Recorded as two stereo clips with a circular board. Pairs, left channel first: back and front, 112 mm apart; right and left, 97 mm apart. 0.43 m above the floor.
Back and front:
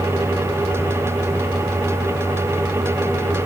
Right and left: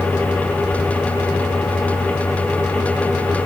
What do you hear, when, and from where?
Only background noise.